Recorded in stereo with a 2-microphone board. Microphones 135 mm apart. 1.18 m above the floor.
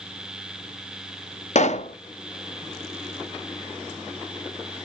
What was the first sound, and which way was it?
A pop, 55° left (ahead or behind).